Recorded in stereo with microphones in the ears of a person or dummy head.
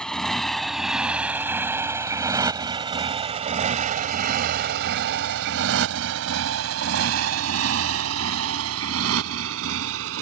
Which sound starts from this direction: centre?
A motorcycle, at 0.0 s.